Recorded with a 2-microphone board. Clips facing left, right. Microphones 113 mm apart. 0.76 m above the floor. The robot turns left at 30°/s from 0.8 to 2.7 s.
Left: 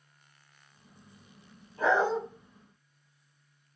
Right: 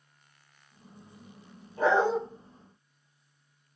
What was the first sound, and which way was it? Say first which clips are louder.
A dog barking: right 2 dB; 75° right (ahead or behind).